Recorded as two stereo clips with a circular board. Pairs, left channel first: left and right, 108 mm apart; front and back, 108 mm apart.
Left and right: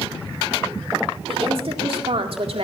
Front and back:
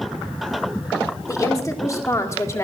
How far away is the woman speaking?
About 2.5 m.